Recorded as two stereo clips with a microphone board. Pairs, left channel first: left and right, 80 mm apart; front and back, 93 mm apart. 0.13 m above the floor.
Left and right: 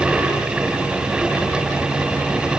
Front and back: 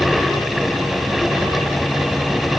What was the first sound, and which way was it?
Only background noise.